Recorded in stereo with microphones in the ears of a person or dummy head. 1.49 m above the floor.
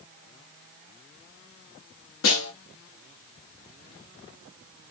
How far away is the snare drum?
About 0.8 m.